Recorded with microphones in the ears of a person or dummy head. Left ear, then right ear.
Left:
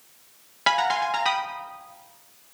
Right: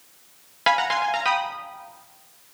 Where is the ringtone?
Centre (ahead or behind), 1.5 m.